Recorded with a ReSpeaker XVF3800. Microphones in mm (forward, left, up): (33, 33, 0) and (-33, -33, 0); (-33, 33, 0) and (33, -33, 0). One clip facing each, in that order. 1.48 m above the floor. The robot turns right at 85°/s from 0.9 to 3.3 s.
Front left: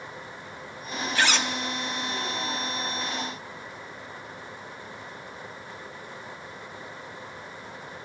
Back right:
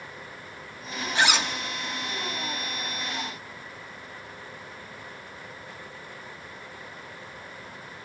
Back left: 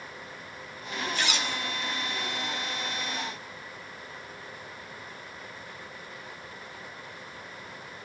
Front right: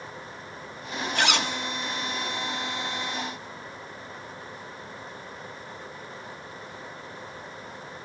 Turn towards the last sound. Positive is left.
turn(degrees=110)